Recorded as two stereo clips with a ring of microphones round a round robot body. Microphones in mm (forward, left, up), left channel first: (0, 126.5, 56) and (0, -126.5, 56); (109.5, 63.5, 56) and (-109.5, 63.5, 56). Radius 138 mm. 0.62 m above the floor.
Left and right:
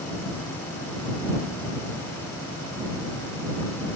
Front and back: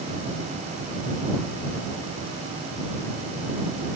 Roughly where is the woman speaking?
I don't hear a woman speaking.